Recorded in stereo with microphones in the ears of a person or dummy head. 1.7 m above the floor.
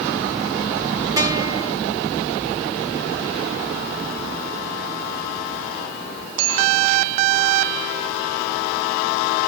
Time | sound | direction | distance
1.2 | a guitar | 15° right (ahead or behind) | 5.5 m